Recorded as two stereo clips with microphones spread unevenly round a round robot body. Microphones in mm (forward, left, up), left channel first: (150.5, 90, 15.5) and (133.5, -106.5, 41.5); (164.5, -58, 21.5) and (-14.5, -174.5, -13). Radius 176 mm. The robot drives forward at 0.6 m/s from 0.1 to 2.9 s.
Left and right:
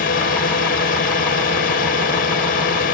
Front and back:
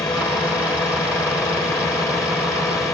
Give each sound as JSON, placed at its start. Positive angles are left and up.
{"t": 0.0, "sound": "a drone", "azimuth_deg": 115}